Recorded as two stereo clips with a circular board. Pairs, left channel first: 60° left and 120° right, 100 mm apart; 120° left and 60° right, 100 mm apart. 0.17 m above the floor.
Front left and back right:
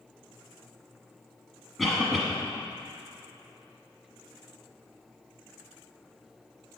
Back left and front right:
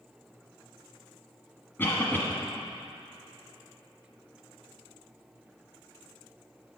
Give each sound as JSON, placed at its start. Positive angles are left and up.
{"t": 1.8, "sound": "a cough", "azimuth_deg": 150, "distance_m": 1.1}